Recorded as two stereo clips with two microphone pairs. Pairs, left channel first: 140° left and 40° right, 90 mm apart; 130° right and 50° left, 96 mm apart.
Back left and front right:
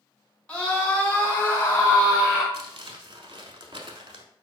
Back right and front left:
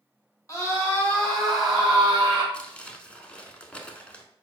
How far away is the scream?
About 1.7 m.